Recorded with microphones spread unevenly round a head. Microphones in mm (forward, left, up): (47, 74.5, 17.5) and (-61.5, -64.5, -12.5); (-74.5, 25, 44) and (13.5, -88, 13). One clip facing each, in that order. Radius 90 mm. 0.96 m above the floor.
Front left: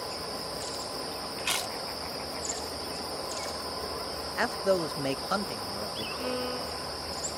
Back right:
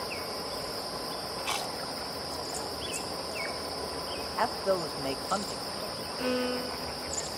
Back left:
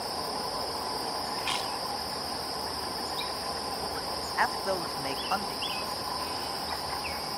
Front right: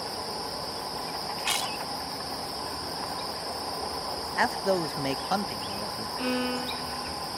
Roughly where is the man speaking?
Ahead.